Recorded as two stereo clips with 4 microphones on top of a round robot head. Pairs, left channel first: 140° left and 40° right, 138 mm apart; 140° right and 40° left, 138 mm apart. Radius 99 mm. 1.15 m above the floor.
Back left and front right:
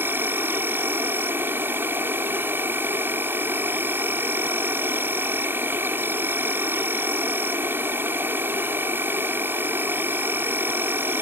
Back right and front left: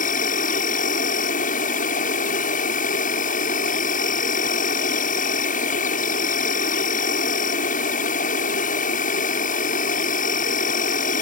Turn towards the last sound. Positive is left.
turn(degrees=-120)